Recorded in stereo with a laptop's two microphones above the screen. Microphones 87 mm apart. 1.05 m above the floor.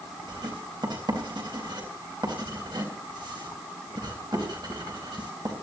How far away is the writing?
About 4 m.